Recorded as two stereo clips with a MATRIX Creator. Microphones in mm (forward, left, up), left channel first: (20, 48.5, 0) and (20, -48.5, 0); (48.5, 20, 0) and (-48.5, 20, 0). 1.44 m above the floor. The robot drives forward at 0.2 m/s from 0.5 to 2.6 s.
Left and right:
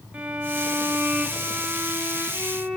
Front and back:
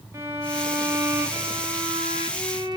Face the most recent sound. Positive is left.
turn(degrees=-165)